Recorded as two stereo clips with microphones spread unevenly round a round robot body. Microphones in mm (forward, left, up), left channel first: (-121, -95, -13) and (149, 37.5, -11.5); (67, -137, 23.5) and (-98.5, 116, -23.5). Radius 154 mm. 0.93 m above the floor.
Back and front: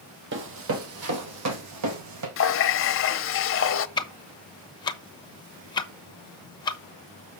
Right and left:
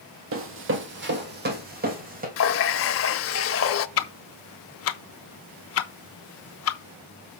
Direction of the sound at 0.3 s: 75° left.